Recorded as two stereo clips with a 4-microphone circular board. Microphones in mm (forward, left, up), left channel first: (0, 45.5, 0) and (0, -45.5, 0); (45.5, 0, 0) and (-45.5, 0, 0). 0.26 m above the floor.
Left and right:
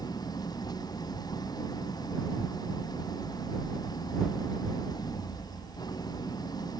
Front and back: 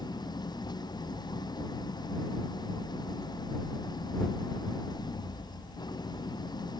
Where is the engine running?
45° left.